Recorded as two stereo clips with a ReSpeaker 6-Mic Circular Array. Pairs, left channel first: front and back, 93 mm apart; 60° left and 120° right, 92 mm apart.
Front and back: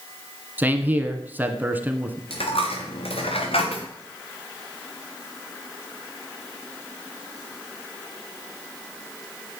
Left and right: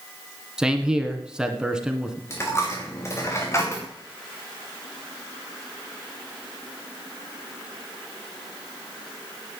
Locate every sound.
0.6 s a man speaking: 175° left, 1.6 m
2.3 s a dropped coin: straight ahead, 3.5 m